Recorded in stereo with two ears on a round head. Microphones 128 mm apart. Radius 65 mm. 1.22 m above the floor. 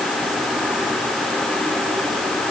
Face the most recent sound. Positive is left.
No sound to turn to.